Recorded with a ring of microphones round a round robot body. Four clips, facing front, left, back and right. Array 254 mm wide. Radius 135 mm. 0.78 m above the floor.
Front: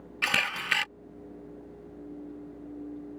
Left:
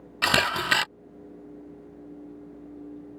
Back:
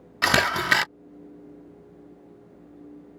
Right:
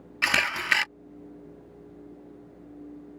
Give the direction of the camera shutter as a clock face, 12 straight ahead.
7 o'clock.